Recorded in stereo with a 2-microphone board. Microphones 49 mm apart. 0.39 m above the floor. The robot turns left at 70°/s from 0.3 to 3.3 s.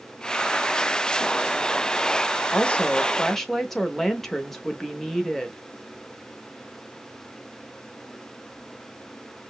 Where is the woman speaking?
25° left (ahead or behind), 0.8 m; by 5.6 s 5° left (ahead or behind), 0.8 m.